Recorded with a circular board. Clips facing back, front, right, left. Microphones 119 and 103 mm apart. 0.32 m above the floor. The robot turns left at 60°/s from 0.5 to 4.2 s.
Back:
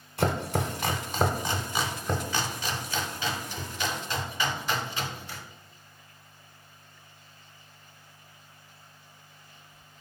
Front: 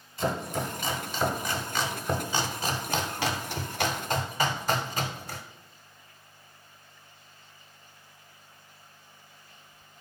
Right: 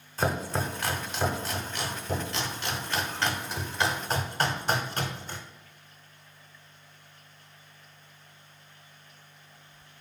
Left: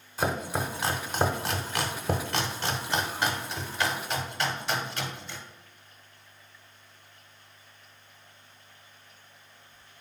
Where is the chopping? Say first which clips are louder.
Back 2 dB, even; 175° left, 0.6 m; by 5.4 s 50° right, 0.6 m.